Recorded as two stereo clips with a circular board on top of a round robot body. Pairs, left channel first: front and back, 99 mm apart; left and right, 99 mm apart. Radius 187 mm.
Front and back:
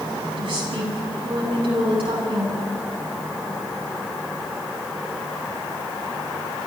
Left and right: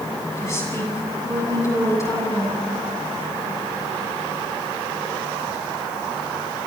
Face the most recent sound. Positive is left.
turn(degrees=150)